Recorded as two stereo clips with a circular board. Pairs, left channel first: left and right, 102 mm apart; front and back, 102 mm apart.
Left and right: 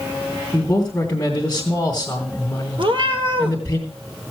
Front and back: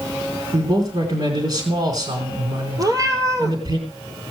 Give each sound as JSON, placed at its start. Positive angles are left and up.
{"t": 0.5, "sound": "a man speaking", "azimuth_deg": 160, "distance_m": 2.5}
{"t": 2.8, "sound": "a cat meowing", "azimuth_deg": -125, "distance_m": 1.5}